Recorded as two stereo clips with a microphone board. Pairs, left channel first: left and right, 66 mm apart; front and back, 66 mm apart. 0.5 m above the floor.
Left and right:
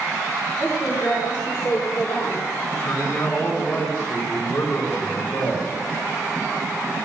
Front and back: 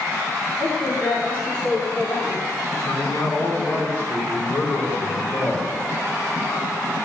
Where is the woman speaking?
35° left, 3 m; by 2.4 s 55° left, 2 m.